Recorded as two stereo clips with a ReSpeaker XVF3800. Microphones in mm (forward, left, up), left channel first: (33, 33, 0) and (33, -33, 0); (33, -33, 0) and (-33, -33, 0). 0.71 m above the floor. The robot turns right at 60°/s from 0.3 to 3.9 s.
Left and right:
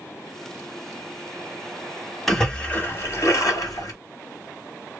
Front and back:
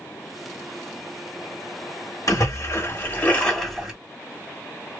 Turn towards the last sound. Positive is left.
turn(degrees=100)